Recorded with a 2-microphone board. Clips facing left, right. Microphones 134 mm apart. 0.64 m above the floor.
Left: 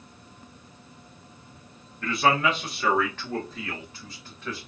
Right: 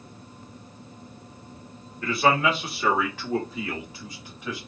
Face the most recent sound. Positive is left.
turn(degrees=-10)  # may be behind; listen again after turning